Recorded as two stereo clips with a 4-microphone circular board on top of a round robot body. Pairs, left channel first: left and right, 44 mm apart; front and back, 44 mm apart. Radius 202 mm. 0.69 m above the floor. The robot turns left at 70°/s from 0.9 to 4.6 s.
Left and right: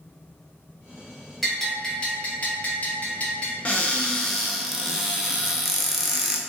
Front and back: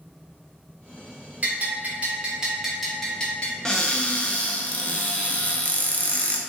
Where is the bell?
170° right, 1.2 m; by 3.5 s 40° left, 1.2 m.